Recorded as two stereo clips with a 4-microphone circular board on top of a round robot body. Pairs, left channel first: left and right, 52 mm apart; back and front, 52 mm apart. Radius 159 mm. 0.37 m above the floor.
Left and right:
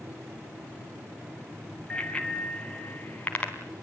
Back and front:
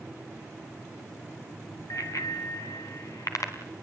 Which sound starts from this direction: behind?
A bicycle bell, at 1.9 s.